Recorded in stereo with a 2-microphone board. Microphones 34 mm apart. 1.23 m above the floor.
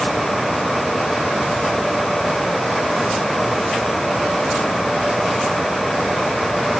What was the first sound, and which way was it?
Only background noise.